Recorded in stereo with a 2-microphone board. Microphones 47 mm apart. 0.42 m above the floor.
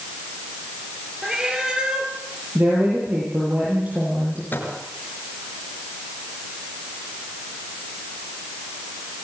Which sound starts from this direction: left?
A microwave, at 4.5 s.